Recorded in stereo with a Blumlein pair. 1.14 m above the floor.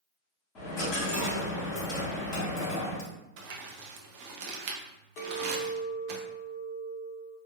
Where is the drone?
I don't hear a drone.